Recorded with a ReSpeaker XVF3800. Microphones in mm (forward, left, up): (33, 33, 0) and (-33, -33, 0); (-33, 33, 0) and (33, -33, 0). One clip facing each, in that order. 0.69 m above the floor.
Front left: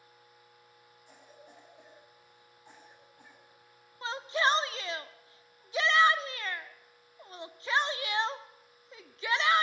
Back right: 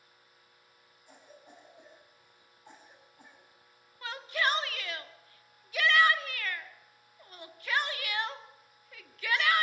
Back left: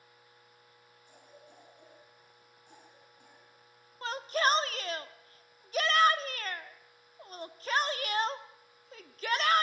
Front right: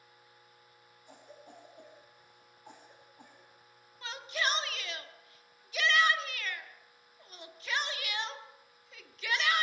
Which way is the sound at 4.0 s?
105° left.